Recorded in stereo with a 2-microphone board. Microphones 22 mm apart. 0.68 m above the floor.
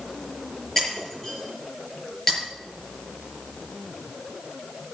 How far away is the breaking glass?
About 6.5 m.